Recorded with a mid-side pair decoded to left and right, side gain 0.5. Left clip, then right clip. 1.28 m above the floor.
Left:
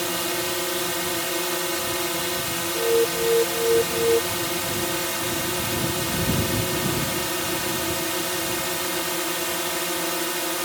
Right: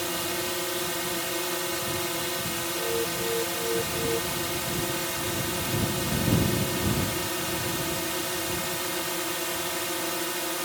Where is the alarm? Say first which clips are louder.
Left 10 dB; 60° left.